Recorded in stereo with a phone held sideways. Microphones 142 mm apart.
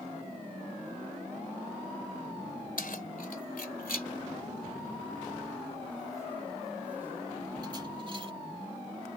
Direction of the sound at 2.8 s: 80° left.